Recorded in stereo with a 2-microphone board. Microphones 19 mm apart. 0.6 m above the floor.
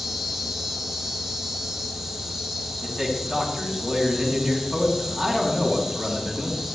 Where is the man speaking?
10° right (ahead or behind), 5.5 m.